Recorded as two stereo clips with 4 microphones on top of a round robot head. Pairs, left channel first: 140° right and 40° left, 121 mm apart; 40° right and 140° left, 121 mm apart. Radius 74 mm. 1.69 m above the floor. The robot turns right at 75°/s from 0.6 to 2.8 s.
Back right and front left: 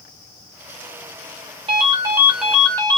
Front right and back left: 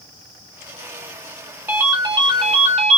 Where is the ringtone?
70° left, 0.7 m; by 3.0 s 155° left, 0.7 m.